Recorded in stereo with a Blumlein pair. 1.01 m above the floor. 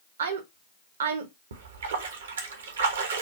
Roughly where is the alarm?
No alarm in this recording.